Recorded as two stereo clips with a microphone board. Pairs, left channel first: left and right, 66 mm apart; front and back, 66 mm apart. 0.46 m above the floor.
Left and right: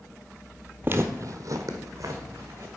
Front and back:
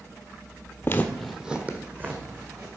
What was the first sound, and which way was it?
Footsteps, 40° right.